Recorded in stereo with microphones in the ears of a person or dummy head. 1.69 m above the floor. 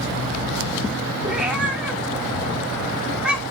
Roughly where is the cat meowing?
Centre.